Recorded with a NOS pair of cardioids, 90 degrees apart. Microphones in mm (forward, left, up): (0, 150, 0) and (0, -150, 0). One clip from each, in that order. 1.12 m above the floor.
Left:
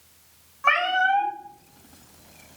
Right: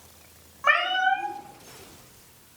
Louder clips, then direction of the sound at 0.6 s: Left 1 dB; straight ahead.